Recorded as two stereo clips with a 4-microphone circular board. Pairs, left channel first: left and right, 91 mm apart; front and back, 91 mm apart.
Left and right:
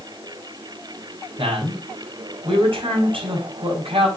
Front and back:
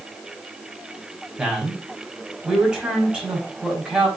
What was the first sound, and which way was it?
A man speaking, 100° right.